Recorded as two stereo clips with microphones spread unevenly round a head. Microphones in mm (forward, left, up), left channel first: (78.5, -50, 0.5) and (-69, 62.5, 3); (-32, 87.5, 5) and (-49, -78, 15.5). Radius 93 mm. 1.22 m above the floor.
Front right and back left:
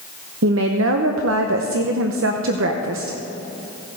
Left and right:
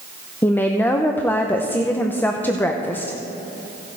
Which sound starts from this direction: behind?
A woman speaking, at 0.4 s.